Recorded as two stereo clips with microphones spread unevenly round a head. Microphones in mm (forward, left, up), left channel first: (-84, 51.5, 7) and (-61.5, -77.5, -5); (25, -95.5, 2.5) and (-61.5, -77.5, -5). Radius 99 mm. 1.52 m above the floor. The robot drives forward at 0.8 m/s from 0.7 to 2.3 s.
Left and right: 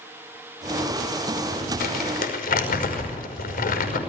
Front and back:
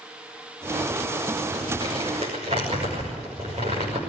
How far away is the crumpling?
About 5 m.